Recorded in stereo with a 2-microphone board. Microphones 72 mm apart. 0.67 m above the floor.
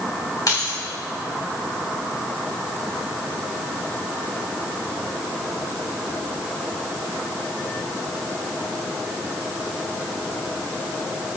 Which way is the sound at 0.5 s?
60° left (ahead or behind).